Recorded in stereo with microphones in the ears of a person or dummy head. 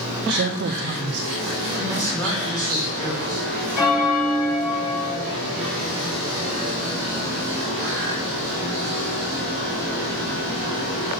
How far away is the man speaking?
About 1.8 m.